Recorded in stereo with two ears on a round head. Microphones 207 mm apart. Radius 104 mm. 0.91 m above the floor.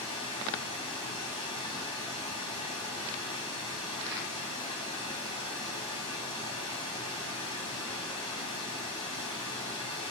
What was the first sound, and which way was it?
Running water, 20° left (ahead or behind).